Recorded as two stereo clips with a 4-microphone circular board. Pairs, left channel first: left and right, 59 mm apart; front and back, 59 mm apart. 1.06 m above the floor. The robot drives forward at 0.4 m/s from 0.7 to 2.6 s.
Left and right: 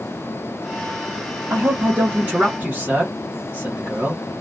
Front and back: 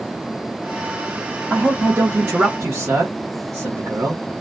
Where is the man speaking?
120° right, 0.6 m; by 4.2 s 150° right, 0.9 m.